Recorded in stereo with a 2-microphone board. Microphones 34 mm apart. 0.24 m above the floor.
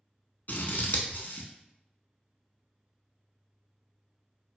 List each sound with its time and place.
0.5 s scissors: 65° left (ahead or behind), 0.7 m